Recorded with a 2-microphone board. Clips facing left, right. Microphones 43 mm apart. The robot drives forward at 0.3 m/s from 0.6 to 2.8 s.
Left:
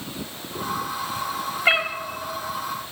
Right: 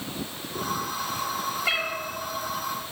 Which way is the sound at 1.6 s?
40° left (ahead or behind).